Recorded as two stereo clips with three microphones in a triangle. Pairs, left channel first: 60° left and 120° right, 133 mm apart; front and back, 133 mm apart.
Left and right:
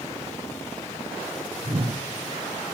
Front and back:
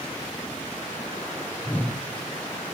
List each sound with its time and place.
1.6 s a whoosh: 80° right, 0.7 m